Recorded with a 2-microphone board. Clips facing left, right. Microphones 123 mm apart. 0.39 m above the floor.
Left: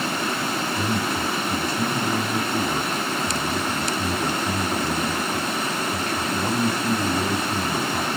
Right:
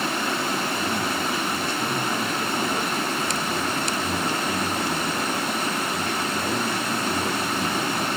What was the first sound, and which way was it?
A man speaking, 40° left (ahead or behind).